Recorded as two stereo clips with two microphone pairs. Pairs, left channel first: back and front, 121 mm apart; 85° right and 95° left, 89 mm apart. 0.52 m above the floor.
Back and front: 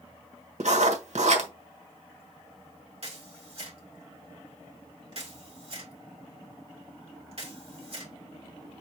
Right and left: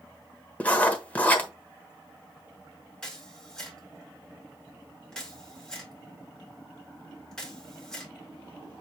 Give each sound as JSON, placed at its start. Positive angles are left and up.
{"t": 0.6, "sound": "writing", "azimuth_deg": -15, "distance_m": 1.1}
{"t": 3.0, "sound": "a camera shutter", "azimuth_deg": -5, "distance_m": 2.0}